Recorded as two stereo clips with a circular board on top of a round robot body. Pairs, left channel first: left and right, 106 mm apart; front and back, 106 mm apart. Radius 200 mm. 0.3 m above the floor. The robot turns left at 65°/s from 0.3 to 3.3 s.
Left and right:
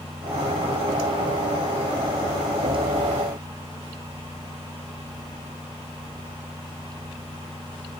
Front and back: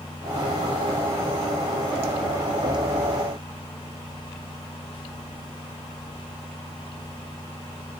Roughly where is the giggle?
No giggle in this recording.